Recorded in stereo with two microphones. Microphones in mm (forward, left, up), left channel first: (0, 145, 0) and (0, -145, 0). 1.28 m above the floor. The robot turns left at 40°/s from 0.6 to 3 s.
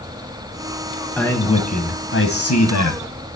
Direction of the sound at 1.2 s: 175° left.